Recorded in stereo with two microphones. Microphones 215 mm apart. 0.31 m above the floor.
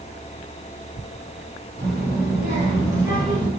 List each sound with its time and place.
1.8 s a child speaking: 55° right (ahead or behind), 1.6 m; by 3.5 s 10° left (ahead or behind), 1.1 m